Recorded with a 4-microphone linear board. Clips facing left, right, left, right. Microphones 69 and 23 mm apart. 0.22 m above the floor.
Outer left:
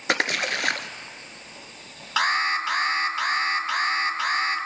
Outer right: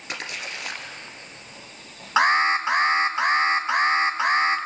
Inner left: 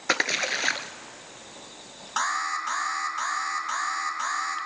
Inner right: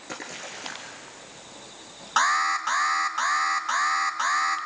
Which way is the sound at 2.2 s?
25° right (ahead or behind).